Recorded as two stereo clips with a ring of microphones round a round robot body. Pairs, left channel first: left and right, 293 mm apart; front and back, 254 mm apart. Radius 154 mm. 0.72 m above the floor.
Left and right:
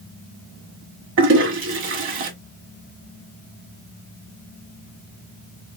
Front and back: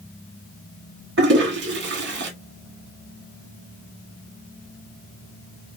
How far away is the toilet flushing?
About 1.5 m.